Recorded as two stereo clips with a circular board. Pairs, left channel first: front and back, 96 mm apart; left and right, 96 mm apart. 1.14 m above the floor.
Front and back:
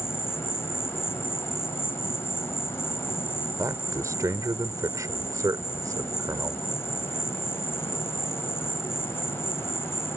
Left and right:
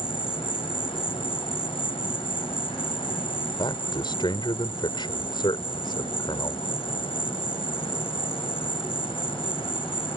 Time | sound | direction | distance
0.0 | an insect | 65° left | ?
3.6 | a man speaking | 125° left | ?